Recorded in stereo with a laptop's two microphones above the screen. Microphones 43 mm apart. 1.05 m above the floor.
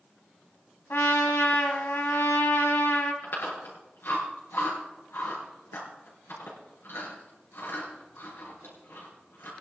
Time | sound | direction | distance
0.9 | a trumpet | 70° left (ahead or behind) | 2.5 m
3.2 | chewing | 80° left | 4.5 m